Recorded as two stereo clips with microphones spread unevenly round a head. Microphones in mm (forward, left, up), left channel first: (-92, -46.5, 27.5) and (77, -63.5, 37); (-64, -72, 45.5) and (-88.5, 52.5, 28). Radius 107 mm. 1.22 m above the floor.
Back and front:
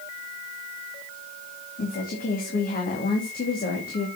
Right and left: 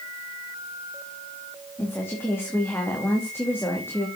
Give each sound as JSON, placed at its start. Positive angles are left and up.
{"t": 1.8, "sound": "a woman speaking", "azimuth_deg": -150, "distance_m": 2.5}